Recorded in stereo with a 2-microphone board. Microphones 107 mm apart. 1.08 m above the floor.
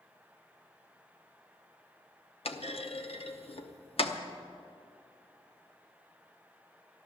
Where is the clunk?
65° left (ahead or behind), 0.9 m.